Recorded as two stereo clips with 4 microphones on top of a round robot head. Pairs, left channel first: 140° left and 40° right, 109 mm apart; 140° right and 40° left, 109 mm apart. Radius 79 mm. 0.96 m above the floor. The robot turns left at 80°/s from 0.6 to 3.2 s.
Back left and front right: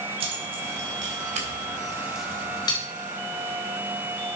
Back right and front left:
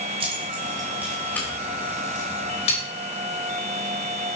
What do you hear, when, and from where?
0.2 s keys jangling: straight ahead, 3 m; by 2.8 s 175° right, 3 m